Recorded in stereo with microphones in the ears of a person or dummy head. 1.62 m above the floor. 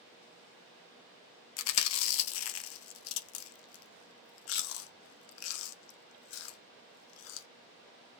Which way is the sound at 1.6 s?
70° left (ahead or behind).